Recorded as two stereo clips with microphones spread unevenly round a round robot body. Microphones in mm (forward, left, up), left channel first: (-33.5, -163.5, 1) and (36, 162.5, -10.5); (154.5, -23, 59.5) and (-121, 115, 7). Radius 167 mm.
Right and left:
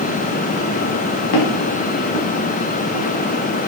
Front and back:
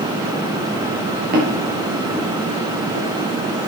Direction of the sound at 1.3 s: 140° right.